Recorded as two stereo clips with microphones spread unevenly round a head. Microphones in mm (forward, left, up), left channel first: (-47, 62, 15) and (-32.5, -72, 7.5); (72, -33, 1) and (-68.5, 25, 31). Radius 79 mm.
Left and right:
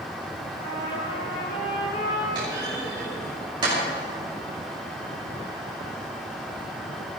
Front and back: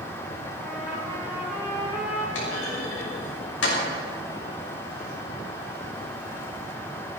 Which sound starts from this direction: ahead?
A clunk, at 2.4 s.